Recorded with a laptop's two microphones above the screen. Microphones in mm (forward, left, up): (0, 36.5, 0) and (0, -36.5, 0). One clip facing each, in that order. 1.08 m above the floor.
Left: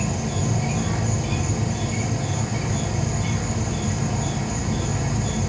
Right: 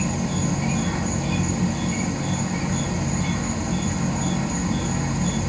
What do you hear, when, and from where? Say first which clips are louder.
0.0 s an insect: right 1 dB; 50° right (ahead or behind), 3 m